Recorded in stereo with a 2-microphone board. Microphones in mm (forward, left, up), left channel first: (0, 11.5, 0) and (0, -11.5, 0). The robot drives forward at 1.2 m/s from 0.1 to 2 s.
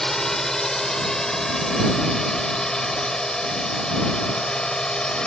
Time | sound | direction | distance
0.0 | a drone | 25° left (ahead or behind) | ?